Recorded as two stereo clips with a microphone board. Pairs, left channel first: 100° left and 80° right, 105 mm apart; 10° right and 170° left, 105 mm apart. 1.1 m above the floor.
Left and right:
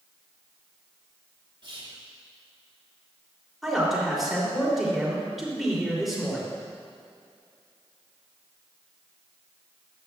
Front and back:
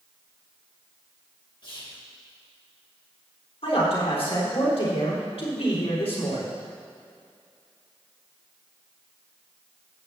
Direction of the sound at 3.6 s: 10° left.